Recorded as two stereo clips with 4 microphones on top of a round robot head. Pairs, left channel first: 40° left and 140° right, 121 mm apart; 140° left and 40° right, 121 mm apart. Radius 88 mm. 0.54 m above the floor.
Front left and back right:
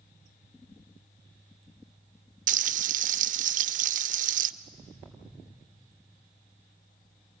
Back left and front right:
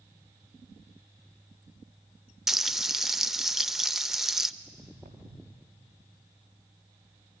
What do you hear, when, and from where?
2.5 s frying: 125° right, 0.7 m
4.6 s footsteps: 45° right, 5.5 m; by 5.6 s 35° right, 6.5 m